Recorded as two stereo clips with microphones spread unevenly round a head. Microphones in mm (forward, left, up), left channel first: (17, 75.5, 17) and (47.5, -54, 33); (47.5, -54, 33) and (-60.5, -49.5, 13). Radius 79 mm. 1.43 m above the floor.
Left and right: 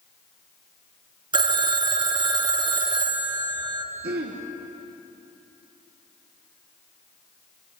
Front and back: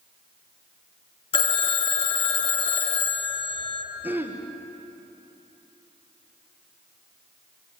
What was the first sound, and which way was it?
A phone ringing, 25° right.